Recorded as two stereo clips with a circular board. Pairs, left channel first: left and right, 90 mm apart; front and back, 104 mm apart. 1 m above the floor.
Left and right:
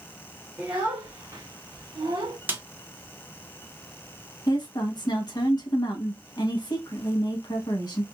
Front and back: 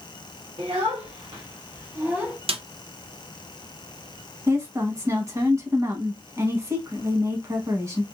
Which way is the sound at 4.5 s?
125° left.